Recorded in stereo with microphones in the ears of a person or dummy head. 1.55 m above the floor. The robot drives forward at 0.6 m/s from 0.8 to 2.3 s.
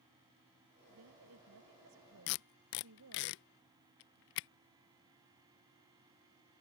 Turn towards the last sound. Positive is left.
turn(degrees=50)  # may be behind; listen again after turning